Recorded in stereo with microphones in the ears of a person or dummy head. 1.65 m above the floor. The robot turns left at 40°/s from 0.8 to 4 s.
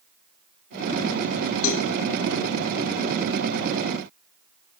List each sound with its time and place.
1.6 s a cowbell: 75° left (ahead or behind), 1.6 m; by 1.9 s 70° left (ahead or behind), 1.6 m